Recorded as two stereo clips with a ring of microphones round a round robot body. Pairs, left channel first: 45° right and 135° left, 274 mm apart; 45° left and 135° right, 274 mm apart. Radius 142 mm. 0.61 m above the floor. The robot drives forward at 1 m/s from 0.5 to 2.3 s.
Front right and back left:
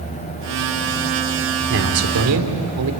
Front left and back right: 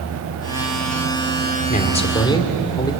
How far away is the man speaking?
About 2.5 m.